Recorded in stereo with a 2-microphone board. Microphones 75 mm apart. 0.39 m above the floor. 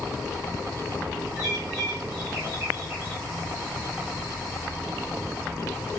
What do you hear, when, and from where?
1.4 s a bird: 50° right (ahead or behind), 9 m